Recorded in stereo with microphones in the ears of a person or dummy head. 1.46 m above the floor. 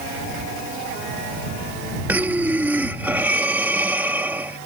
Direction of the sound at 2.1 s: 10° right (ahead or behind).